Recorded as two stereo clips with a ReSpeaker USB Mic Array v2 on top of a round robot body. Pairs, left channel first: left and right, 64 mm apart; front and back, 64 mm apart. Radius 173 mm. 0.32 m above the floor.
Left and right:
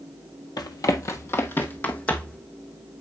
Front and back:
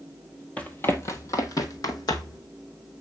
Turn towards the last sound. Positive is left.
turn(degrees=20)